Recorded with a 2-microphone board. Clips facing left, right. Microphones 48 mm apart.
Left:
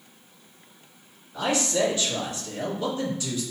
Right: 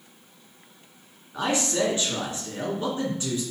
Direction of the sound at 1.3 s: 35° right (ahead or behind).